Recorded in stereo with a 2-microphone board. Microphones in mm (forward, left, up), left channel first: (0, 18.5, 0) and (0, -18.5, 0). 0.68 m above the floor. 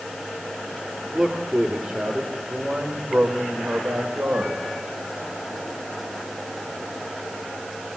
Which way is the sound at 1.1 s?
35° right (ahead or behind).